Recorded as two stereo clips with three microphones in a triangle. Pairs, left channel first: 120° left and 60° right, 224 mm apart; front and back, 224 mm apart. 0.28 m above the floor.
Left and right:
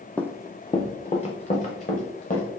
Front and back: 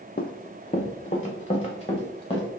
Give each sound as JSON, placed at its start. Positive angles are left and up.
{"t": 0.2, "sound": "running footsteps", "azimuth_deg": 35, "distance_m": 0.5}